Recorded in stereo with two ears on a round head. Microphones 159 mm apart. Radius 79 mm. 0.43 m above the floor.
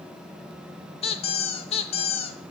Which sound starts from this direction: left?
A squeak, at 1.0 s.